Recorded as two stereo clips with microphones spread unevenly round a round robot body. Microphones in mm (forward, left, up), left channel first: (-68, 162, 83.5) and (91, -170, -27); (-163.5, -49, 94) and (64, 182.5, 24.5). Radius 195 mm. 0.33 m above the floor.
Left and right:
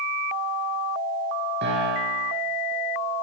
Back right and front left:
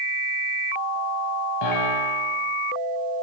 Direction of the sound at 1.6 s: 125° right.